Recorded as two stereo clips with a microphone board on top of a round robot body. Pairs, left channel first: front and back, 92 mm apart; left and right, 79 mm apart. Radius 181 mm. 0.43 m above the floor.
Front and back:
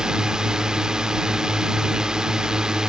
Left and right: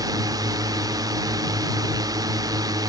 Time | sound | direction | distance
0.0 | a drone | 100° right | ?